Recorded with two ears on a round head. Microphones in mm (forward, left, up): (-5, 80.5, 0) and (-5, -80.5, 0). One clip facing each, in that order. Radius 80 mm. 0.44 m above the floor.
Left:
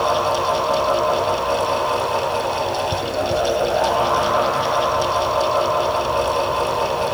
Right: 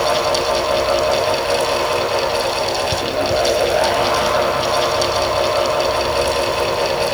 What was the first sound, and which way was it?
Only background noise.